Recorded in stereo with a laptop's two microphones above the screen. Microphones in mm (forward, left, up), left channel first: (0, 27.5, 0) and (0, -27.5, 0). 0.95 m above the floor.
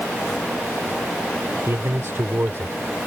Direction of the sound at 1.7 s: 55° right (ahead or behind).